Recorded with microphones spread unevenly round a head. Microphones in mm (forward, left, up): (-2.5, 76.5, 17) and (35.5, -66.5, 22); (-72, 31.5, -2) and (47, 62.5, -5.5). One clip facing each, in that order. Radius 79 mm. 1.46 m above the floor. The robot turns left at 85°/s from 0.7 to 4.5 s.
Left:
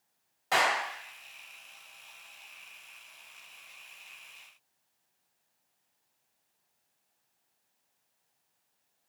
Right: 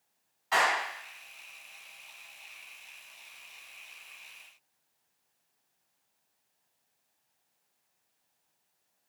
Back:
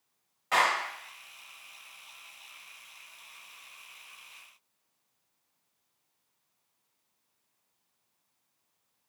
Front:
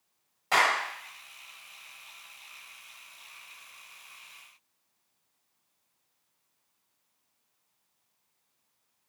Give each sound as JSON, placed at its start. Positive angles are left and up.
{"t": 0.5, "sound": "a clap", "azimuth_deg": 70, "distance_m": 1.5}